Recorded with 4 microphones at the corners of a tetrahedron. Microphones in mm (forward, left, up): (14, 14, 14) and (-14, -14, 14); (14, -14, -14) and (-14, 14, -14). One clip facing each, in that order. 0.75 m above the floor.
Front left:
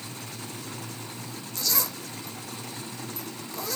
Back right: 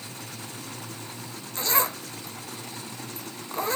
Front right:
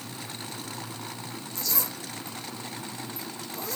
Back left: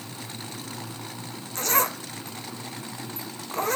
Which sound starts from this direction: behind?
A zipper, at 1.6 s.